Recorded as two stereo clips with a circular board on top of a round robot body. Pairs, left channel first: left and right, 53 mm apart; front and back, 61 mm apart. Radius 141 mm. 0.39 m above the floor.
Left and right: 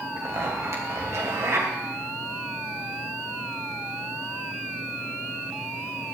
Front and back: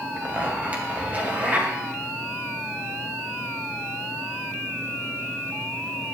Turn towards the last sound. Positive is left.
turn(degrees=-115)